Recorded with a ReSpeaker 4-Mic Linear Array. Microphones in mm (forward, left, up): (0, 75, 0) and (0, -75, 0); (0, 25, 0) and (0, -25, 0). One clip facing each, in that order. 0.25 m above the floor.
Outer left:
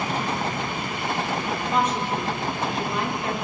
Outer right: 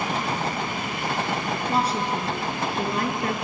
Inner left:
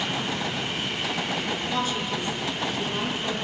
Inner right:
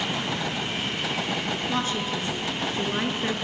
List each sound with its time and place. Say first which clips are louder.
1.7 s a woman speaking: outer left 1 dB, even; 35° right (ahead or behind), 3 m; by 3.3 s 50° right (ahead or behind), 3.5 m